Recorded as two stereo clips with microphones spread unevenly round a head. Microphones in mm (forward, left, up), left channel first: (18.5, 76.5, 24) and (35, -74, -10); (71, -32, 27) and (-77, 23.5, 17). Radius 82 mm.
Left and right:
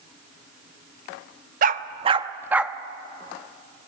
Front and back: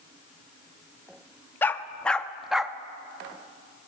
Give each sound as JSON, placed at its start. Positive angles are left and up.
{"t": 1.6, "sound": "a dog barking", "azimuth_deg": -85, "distance_m": 0.8}